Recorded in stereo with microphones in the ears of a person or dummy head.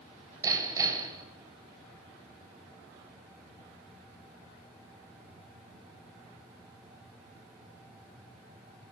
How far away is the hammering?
About 9.5 m.